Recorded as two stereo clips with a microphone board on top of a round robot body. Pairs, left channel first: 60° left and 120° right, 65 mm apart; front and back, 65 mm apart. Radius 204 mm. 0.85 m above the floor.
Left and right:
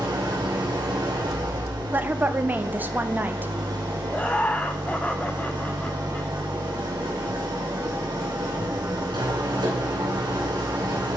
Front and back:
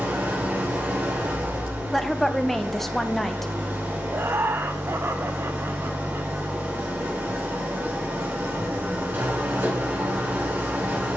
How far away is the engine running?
About 1.9 m.